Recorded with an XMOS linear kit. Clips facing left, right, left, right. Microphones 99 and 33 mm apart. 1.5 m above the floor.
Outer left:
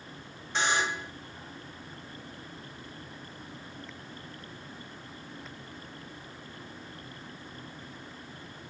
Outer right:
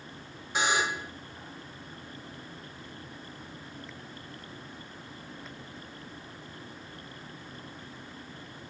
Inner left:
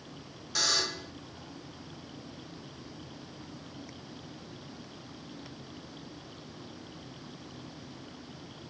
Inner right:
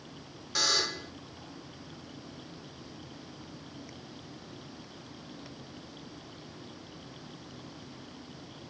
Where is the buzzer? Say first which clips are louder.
Outer right 1 dB, inner right 1 dB; 10° right (ahead or behind), 1.0 m.